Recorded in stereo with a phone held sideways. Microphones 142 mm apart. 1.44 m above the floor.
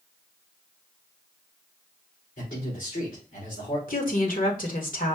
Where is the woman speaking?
70° left (ahead or behind), 1.3 m.